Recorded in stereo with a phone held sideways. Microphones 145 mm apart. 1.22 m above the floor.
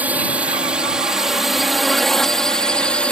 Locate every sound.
0.0 s a drone: 10° right (ahead or behind); by 3.1 s 10° left (ahead or behind)